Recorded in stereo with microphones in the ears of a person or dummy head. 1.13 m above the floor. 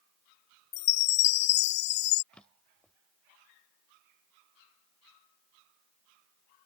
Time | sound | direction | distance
0.7 | a chime | 65° left (ahead or behind) | ?
2.3 | a drawer | 5° left (ahead or behind) | ?